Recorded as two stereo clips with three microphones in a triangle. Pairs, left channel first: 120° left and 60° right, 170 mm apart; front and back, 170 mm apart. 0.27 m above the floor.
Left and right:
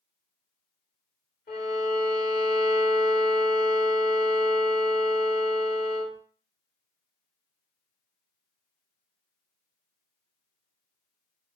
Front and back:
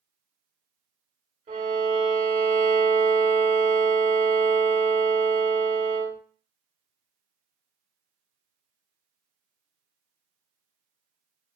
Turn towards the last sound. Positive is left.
turn(degrees=140)